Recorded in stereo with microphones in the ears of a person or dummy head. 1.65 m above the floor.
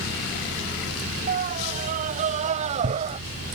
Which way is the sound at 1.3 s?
45° right (ahead or behind).